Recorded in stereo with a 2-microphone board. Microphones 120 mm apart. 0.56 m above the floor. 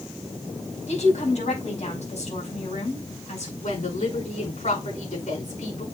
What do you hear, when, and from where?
0.9 s a woman speaking: 70° left (ahead or behind), 4 m
3.6 s a woman speaking: 80° left, 6 m